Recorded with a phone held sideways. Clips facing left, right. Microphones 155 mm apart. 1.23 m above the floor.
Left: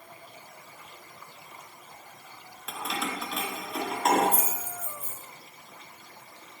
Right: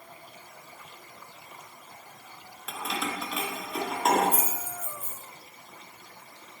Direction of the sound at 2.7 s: 5° left (ahead or behind).